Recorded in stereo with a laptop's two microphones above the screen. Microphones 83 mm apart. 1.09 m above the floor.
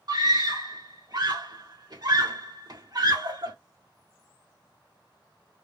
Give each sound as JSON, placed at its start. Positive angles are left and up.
{"t": 0.1, "sound": "a scream", "side_deg": -55, "distance_m": 2.0}